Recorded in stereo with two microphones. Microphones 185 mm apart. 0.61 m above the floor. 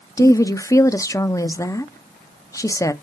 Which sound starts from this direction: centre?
A woman speaking, at 0.2 s.